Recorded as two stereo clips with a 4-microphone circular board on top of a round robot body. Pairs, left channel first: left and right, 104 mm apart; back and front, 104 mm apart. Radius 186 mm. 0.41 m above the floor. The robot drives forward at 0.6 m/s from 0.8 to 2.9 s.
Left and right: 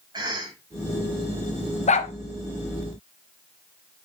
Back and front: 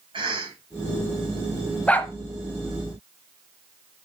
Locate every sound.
0.1 s a cough: 40° right, 3 m
1.9 s a dog barking: 100° left, 0.9 m; by 2.1 s 110° left, 0.9 m